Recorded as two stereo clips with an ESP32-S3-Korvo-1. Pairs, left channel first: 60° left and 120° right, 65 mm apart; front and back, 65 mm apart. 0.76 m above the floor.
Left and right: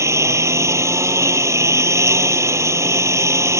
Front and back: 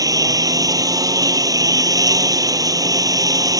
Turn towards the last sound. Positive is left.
turn(degrees=-160)